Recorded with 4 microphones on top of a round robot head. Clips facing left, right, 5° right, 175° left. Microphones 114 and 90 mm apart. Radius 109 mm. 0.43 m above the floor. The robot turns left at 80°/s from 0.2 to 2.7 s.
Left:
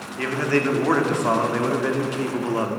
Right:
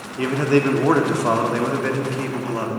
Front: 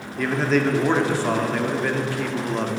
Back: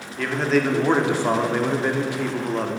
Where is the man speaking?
75° right, 1.2 m; by 2.8 s 85° left, 1.2 m.